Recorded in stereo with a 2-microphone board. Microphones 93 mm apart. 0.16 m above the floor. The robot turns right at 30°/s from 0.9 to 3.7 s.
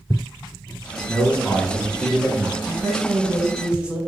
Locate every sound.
1.1 s a man speaking: 10° left (ahead or behind), 1.2 m; by 2.5 s 10° right (ahead or behind), 1.2 m
2.6 s a woman speaking: centre (ahead or behind), 1.2 m; by 4.0 s 10° right (ahead or behind), 1.2 m